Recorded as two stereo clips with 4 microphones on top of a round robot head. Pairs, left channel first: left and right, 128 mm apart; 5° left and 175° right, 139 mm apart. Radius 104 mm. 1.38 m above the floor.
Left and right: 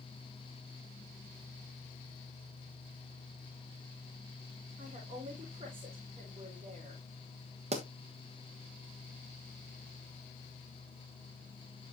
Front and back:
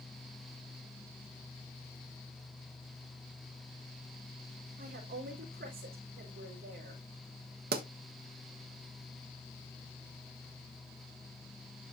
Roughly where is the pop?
Behind right.